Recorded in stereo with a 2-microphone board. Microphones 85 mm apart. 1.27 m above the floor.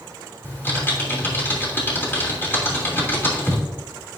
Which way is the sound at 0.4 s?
25° left (ahead or behind).